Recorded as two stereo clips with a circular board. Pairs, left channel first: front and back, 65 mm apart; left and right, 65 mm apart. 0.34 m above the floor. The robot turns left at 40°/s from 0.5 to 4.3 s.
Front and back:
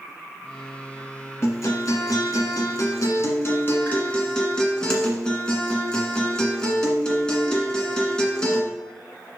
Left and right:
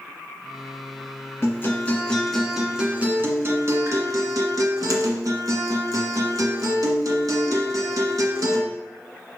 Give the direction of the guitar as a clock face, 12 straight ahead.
11 o'clock.